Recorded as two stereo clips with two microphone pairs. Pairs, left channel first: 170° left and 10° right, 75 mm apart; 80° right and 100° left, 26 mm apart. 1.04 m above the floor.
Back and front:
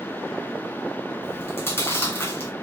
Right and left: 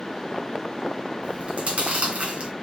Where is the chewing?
120° left, 2 m.